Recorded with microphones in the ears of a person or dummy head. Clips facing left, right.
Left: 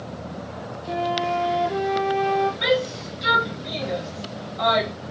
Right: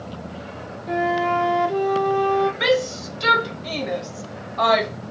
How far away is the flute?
About 0.7 m.